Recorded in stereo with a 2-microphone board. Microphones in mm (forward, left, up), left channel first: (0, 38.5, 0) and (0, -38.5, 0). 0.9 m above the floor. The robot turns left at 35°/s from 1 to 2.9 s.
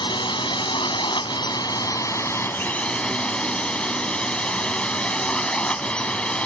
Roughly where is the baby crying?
No baby crying in this recording.